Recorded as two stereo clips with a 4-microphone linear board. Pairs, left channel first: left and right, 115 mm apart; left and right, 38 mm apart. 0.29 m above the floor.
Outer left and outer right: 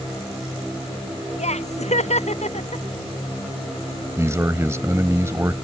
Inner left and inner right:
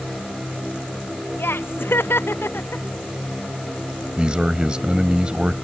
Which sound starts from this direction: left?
Laughter, at 1.4 s.